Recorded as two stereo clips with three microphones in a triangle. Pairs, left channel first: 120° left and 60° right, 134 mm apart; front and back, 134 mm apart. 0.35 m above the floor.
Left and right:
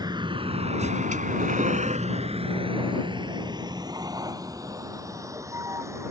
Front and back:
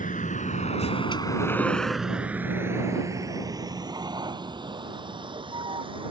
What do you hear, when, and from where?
0.0 s a vehicle: straight ahead; by 6.1 s 130° right